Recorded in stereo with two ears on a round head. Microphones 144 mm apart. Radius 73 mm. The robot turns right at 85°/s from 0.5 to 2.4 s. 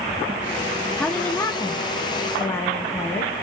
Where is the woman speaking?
5° left (ahead or behind), 0.6 m; by 3.3 s 15° left (ahead or behind), 0.6 m.